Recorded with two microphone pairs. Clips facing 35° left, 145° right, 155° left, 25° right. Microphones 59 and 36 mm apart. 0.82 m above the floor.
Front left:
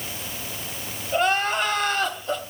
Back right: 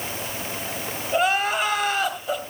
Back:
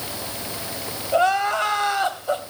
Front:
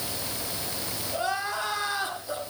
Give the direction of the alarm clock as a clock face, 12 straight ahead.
No alarm clock in this recording.